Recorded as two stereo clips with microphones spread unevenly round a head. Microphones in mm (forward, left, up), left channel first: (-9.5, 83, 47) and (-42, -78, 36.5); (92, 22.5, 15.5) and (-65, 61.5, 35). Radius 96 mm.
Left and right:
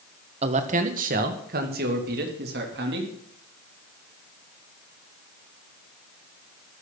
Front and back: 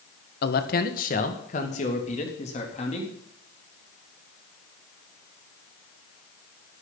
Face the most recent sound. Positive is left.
turn(degrees=-75)